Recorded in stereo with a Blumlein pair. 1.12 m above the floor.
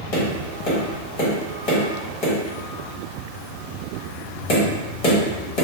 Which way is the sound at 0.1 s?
45° left.